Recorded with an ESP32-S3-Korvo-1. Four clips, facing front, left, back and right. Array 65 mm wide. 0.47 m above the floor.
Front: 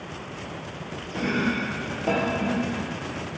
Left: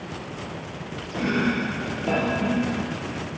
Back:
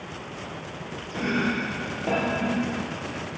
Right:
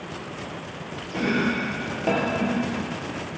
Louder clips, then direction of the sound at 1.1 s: Even, even; 100° right.